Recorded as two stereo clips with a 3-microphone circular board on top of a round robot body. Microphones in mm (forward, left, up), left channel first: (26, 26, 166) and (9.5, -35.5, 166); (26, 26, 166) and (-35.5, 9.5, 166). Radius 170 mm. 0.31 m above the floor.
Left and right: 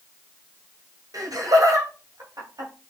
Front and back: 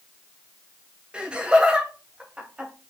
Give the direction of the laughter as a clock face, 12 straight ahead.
3 o'clock.